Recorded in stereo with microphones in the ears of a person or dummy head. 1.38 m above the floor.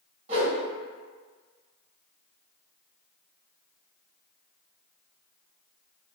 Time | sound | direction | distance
0.3 | a whoosh | 35° right (ahead or behind) | 1.2 m